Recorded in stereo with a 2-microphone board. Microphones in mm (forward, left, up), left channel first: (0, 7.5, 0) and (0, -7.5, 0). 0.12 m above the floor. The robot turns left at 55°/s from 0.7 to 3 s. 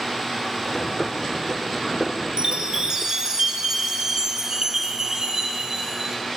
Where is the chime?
100° right, 0.6 m; by 6.2 s 135° right, 0.6 m.